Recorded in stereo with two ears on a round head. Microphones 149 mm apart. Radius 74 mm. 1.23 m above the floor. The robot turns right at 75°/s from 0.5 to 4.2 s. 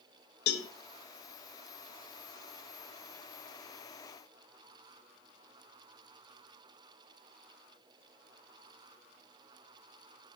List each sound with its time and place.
0.5 s a cowbell: 65° left (ahead or behind), 1.0 m; by 0.7 s 50° left (ahead or behind), 1.0 m